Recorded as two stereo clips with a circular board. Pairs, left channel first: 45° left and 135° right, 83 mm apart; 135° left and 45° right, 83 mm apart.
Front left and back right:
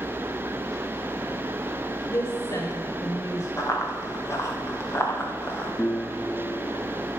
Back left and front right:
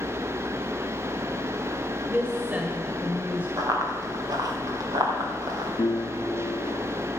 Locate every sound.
2.1 s a woman speaking: 20° left, 1.4 m
3.6 s running footsteps: 5° right, 3.5 m; by 5.7 s 20° right, 3 m
5.8 s a piano: 110° left, 0.8 m